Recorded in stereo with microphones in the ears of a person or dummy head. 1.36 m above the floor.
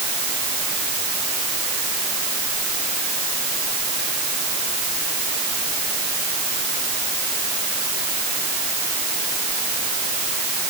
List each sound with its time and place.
Only background noise.